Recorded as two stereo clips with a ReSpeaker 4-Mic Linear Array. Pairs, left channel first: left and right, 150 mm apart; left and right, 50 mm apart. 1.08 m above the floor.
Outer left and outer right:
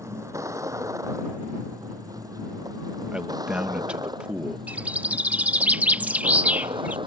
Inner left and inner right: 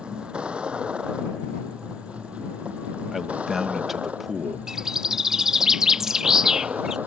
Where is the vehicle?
20° right (ahead or behind); by 7.1 s 35° right (ahead or behind).